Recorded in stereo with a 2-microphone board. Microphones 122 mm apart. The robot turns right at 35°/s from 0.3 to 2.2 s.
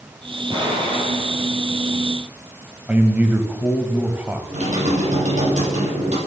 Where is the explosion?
40° right (ahead or behind), 5.5 m; by 2.1 s 75° right (ahead or behind), 5.5 m.